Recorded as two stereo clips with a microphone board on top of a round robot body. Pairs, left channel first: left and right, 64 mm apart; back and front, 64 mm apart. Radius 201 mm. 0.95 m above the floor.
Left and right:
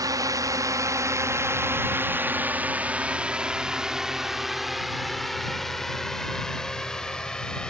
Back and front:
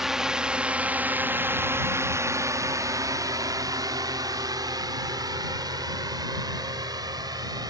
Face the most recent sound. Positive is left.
turn(degrees=10)